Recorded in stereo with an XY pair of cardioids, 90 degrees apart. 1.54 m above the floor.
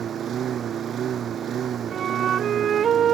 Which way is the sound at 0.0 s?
65° right.